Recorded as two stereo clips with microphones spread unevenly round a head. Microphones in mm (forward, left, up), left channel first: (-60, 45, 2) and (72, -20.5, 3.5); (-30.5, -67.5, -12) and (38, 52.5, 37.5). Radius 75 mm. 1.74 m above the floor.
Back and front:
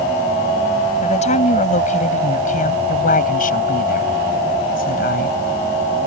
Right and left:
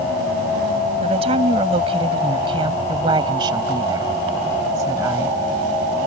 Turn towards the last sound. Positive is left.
turn(degrees=130)